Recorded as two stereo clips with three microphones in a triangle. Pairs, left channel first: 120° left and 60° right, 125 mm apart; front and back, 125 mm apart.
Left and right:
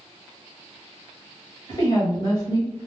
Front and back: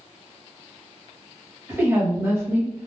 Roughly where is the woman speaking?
Behind left.